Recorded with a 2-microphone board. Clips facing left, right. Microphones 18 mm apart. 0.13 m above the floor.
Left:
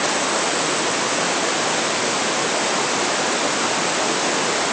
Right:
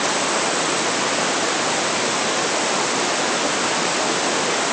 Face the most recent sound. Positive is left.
No sound to turn to.